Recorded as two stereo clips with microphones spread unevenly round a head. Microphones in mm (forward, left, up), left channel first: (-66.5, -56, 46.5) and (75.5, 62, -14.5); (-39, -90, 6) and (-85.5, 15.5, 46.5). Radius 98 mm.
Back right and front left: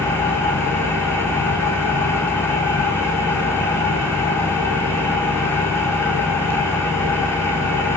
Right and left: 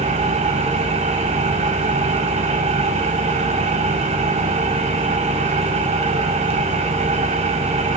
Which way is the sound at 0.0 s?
140° left.